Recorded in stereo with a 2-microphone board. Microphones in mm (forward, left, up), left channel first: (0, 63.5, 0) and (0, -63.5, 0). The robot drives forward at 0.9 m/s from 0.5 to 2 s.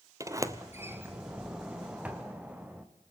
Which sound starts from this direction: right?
A sliding door, at 0.2 s.